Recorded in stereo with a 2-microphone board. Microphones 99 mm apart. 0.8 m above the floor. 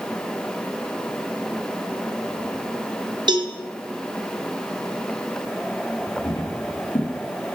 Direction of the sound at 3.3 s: 50° right (ahead or behind).